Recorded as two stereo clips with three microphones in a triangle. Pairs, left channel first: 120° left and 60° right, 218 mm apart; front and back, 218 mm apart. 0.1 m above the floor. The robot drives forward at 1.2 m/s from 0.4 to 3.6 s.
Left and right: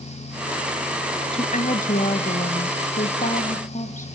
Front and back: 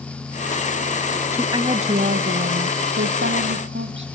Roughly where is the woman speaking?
Left.